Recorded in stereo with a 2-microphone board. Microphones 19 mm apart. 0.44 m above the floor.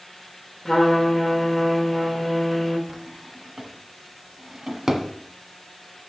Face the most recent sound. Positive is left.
turn(degrees=-20)  # may be behind; listen again after turning